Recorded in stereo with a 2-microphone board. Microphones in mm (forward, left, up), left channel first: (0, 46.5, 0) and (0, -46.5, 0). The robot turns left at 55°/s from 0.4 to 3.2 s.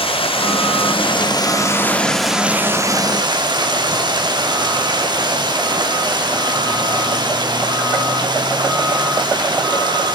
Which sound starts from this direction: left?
Running water, at 0.0 s.